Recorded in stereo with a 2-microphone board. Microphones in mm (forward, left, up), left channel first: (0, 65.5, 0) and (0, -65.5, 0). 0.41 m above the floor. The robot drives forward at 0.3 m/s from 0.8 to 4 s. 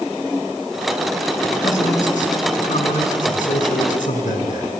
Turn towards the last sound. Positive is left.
turn(degrees=80)